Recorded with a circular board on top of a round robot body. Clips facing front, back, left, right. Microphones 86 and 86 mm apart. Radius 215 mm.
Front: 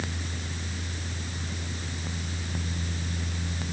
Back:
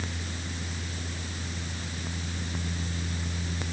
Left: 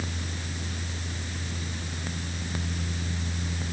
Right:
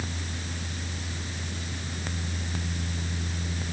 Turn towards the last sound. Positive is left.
No sound to turn to.